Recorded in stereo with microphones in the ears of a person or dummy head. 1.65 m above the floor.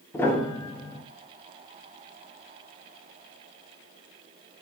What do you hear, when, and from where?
0.1 s a piano: 15° left (ahead or behind), 0.6 m